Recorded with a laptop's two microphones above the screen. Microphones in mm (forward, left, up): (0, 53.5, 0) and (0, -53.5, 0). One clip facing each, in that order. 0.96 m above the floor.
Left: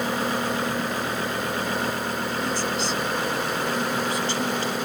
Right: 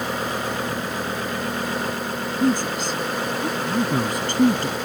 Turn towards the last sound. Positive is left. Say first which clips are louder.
# right 9 dB
turn(degrees=-50)  # may be behind; listen again after turning